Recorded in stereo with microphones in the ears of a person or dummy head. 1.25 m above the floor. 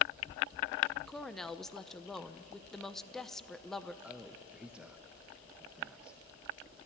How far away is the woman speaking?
About 0.9 m.